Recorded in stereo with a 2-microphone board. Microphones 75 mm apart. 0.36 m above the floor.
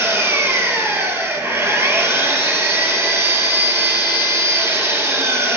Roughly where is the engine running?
Right.